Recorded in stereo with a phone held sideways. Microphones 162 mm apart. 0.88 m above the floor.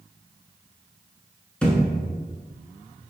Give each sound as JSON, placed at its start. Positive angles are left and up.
{"t": 1.6, "sound": "a thud", "side_deg": 5, "distance_m": 1.1}